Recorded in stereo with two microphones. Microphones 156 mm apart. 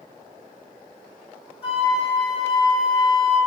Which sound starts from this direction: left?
A flute, at 1.6 s.